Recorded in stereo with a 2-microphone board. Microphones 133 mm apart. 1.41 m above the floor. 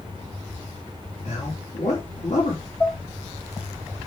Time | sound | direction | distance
1.2 | a man speaking | 60° left (ahead or behind) | 3.5 m
2.8 | dishes clattering | 20° left (ahead or behind) | 2.5 m